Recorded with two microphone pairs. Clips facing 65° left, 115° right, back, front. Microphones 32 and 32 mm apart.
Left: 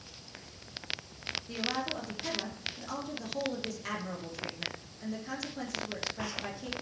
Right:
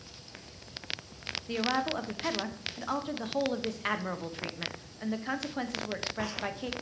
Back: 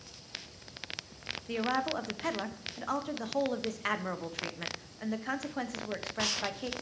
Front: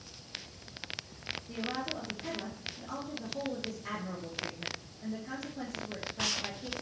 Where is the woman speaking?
160° right, 0.8 m.